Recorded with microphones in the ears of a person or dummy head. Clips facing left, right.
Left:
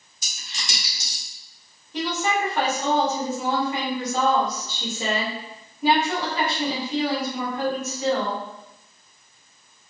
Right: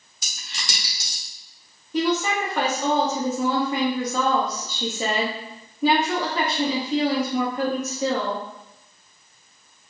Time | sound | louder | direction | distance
0.2 | a dropped coin | right 1 dB | 60° right (ahead or behind) | 2.0 m
1.9 | a woman speaking | right 3 dB | 75° right (ahead or behind) | 1.7 m